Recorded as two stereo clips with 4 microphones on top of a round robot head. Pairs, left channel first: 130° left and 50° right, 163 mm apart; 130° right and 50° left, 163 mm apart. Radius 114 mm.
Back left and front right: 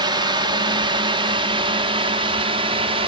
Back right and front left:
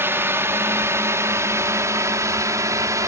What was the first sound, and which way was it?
A drone, 15° right.